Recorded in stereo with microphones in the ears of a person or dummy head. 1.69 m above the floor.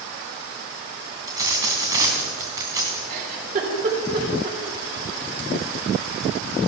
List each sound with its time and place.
1.3 s a dropped coin: 20° right (ahead or behind), 2.5 m
3.1 s a giggle: 50° right (ahead or behind), 3.5 m